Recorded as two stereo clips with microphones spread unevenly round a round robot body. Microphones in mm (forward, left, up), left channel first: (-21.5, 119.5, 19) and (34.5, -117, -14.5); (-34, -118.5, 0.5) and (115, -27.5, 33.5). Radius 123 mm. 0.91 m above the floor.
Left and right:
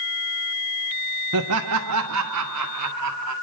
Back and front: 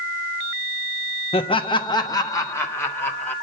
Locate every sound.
1.3 s laughter: 95° right, 1.0 m; by 3.3 s 70° right, 1.8 m